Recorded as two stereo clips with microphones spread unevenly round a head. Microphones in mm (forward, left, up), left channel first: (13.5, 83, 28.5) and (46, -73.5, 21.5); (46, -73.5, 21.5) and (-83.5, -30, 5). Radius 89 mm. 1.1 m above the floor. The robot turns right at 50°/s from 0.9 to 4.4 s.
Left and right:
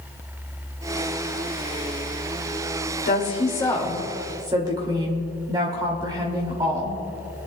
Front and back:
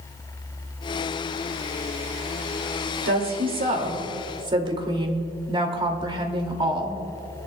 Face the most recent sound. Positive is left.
turn(degrees=-145)